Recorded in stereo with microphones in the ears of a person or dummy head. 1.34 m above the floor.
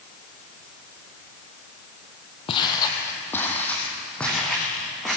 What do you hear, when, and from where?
2.5 s footsteps: 25° left (ahead or behind), 2.5 m; by 5.2 s centre (ahead or behind), 6 m